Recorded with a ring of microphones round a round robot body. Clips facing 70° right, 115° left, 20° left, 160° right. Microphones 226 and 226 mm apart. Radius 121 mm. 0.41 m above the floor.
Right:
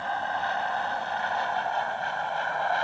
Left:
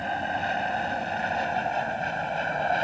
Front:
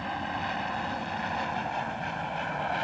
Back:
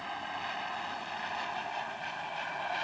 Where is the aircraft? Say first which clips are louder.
Left 2 dB, front 8 dB; 45° left; by 2.8 s 50° left.